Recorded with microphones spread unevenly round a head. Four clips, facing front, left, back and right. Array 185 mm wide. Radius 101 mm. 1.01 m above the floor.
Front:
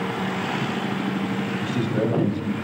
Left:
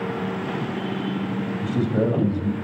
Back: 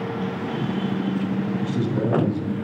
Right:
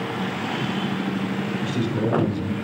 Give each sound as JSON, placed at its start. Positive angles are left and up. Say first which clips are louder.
{"t": 1.6, "sound": "a man speaking", "louder": "left 4 dB, front 2 dB", "azimuth_deg": 70, "distance_m": 1.4}